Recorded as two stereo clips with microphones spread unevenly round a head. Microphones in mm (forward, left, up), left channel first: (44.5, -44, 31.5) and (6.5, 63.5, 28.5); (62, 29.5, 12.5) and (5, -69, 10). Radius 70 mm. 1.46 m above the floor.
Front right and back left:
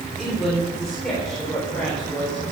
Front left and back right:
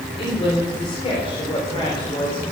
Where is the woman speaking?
20° left, 3.5 m; by 2.4 s 10° left, 5 m.